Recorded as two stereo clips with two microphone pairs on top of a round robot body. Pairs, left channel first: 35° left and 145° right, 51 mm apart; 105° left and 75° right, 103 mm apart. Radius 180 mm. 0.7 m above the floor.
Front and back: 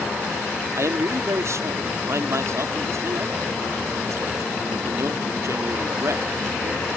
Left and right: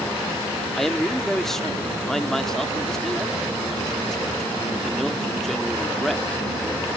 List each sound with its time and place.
0.8 s a man speaking: 170° right